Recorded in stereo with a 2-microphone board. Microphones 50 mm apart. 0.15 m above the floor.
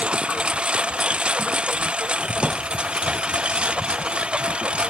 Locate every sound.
0.0 s a lawn mower: 20° right (ahead or behind)